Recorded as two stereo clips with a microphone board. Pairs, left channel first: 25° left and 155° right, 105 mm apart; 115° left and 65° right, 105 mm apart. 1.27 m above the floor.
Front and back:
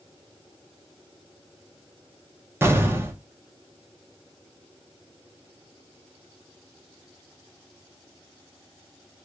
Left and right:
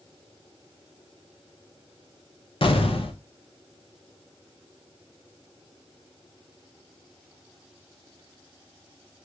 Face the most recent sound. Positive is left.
turn(degrees=135)